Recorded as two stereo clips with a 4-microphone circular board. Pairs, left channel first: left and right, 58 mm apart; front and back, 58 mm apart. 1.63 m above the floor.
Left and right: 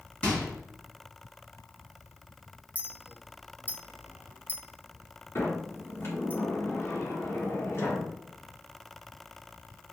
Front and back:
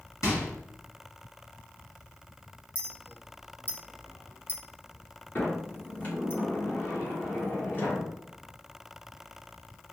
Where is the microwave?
25° left, 2 m.